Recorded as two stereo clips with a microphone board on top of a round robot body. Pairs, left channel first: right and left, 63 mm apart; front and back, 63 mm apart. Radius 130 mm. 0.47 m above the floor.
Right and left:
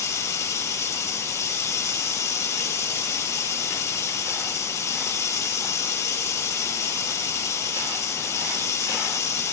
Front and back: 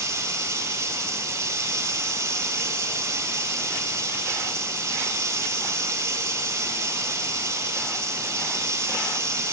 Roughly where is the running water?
Behind right.